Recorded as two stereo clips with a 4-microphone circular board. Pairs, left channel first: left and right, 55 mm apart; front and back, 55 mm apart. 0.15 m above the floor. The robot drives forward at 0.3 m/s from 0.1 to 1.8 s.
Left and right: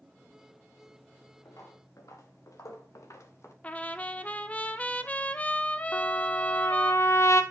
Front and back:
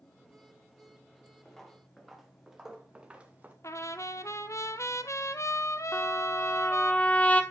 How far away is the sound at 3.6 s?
About 0.6 m.